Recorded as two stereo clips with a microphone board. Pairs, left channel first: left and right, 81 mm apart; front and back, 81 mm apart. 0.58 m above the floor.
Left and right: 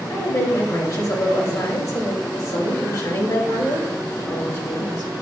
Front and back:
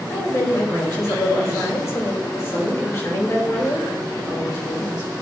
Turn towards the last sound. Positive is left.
turn(degrees=50)